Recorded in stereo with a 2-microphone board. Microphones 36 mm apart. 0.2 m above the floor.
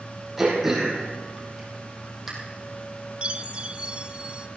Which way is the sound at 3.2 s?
30° right (ahead or behind).